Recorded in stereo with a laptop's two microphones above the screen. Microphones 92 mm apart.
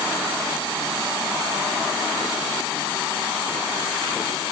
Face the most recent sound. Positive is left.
No sound to turn to.